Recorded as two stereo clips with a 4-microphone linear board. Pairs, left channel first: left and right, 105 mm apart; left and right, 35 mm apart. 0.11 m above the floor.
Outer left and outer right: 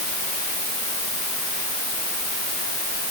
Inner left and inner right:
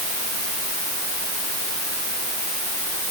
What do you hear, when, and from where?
Only background noise.